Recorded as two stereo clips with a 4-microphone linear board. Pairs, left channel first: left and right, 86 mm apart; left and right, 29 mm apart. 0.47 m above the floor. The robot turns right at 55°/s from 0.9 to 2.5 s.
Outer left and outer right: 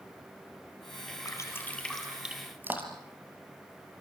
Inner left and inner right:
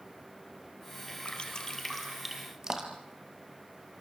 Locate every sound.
1.2 s dripping: 45° left (ahead or behind), 3 m; by 3.1 s 25° right (ahead or behind), 3 m